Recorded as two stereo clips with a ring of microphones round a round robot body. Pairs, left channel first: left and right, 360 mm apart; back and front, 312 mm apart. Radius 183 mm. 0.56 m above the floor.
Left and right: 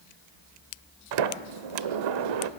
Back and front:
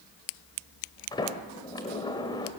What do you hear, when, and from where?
1.1 s a sliding door: 100° right, 1.2 m